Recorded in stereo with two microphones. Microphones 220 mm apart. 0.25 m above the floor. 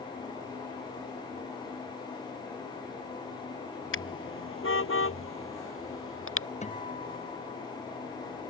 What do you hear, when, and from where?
3.9 s a car horn: 70° left (ahead or behind); by 6.5 s 75° left (ahead or behind)
6.6 s a guitar: 30° left (ahead or behind)